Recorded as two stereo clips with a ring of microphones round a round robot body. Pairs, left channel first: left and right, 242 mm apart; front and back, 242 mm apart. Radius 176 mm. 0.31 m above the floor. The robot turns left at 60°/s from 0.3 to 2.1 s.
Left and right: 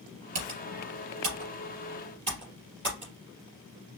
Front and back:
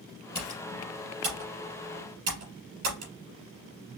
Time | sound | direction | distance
0.3 | typing on a keyboard | 80° right | 3 m